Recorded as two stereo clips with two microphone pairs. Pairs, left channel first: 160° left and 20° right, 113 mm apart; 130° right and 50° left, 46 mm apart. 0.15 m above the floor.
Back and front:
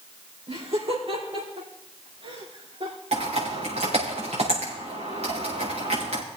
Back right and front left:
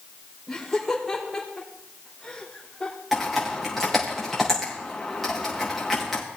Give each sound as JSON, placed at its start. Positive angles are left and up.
{"t": 0.5, "sound": "laughter", "azimuth_deg": -45, "distance_m": 6.5}
{"t": 3.1, "sound": "typing on a keyboard", "azimuth_deg": -40, "distance_m": 5.5}